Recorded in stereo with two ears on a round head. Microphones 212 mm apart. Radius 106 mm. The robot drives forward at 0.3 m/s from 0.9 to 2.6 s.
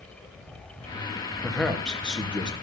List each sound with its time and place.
1.4 s a man speaking: 5° left (ahead or behind), 1.7 m